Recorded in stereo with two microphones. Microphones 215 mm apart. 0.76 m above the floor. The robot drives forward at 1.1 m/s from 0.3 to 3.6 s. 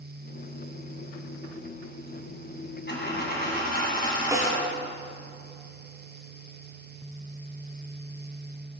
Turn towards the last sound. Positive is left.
turn(degrees=-15)  # may be behind; listen again after turning